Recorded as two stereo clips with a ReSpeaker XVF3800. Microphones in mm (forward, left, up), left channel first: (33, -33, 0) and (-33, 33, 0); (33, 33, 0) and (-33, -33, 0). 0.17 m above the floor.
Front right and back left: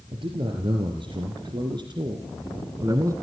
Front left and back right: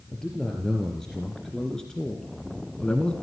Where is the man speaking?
130° left, 3.5 m; by 3.1 s 120° left, 1.8 m.